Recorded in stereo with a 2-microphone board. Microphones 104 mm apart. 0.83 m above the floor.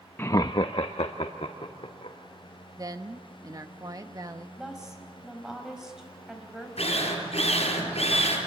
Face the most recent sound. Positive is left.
turn(degrees=80)